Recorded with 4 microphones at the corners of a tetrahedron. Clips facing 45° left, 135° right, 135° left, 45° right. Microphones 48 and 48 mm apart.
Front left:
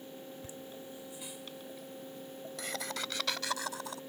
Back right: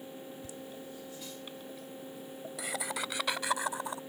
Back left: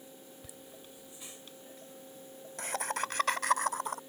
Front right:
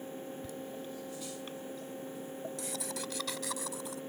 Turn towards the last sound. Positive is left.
turn(degrees=160)